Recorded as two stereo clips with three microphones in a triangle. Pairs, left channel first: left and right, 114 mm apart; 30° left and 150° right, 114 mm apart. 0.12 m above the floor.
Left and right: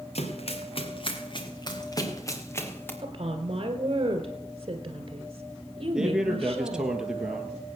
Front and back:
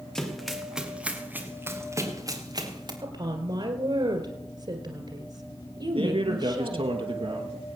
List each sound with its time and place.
0.1 s running footsteps: 115° left, 2.5 m; by 2.9 s 160° left, 2.5 m
3.0 s a woman speaking: 125° right, 1.8 m
5.9 s a man speaking: 175° right, 2.5 m